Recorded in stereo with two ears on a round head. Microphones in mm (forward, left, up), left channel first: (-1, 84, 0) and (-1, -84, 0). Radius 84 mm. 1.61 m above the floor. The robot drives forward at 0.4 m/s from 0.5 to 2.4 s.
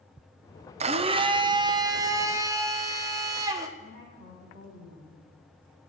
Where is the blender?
35° right (ahead or behind), 0.6 m; by 3.7 s 15° right (ahead or behind), 1.2 m.